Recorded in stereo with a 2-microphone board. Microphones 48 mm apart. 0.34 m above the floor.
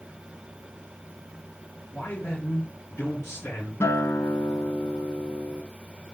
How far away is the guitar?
About 0.8 m.